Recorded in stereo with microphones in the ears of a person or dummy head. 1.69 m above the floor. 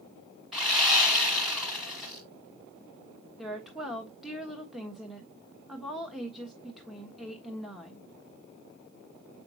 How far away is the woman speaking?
About 1.3 m.